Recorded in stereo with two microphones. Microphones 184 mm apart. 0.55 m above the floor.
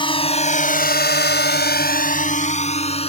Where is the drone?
25° left (ahead or behind); by 3.1 s 30° left (ahead or behind).